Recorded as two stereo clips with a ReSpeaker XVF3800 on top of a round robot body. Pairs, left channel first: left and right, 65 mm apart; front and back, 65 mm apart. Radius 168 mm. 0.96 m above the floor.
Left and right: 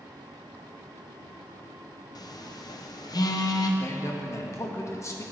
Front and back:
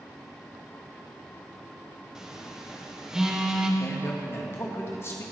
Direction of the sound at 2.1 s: 100° left.